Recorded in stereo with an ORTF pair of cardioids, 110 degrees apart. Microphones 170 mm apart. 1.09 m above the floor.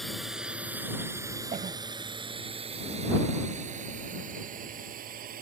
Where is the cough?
45° right.